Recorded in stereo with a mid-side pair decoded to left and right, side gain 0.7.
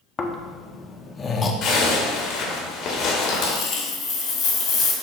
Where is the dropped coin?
60° left, 1.2 m.